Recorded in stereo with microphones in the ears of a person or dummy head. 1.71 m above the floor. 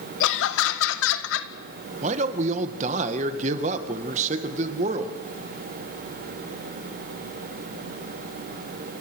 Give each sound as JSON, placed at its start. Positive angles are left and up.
{"t": 0.2, "sound": "laughter", "side_deg": 80, "distance_m": 1.6}
{"t": 2.0, "sound": "a man speaking", "side_deg": -35, "distance_m": 1.9}